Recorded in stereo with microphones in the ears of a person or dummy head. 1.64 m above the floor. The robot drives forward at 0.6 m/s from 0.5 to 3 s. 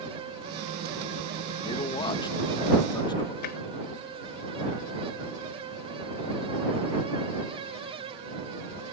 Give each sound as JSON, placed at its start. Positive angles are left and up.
{"t": 1.6, "sound": "a man speaking", "side_deg": 30}
{"t": 3.4, "sound": "tapping", "side_deg": 55}